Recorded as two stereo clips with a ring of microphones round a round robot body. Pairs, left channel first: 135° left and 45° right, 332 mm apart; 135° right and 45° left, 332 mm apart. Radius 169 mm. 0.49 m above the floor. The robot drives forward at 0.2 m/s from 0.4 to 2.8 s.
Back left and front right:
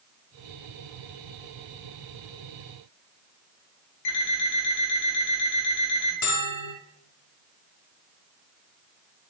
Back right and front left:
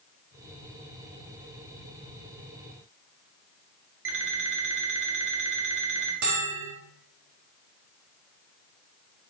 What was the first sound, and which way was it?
An alarm clock, 95° left.